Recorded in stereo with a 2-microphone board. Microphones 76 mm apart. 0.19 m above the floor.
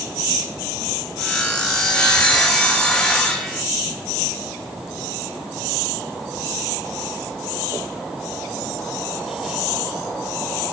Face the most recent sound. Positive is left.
turn(degrees=10)  # may be behind; listen again after turning